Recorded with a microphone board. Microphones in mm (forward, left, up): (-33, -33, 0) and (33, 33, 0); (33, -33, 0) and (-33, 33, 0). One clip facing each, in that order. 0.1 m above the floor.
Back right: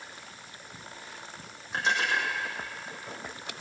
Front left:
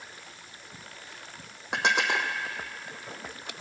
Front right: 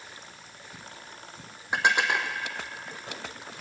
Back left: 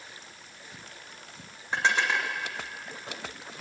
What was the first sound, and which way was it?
Dishes clattering, 30° left.